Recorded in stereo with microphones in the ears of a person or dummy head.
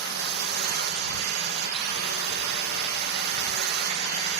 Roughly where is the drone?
Right.